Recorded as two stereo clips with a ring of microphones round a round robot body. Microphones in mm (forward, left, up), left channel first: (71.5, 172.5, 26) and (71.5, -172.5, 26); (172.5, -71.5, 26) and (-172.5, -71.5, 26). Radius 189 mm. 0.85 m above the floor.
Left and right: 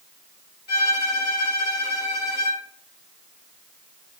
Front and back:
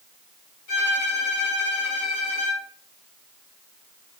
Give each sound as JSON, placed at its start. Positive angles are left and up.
{"t": 0.7, "sound": "a violin", "azimuth_deg": 30, "distance_m": 1.9}